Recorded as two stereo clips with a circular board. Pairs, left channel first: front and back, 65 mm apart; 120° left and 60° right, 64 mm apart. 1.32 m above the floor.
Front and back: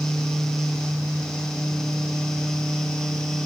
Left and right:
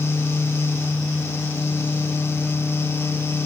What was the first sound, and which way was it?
Only background noise.